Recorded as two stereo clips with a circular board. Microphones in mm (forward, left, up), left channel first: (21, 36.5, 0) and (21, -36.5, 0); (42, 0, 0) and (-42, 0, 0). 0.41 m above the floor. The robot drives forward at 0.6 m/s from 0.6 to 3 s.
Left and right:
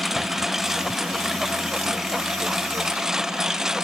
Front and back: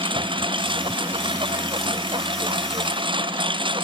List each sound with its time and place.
0.0 s a lawn mower: 175° right; by 3.9 s 170° right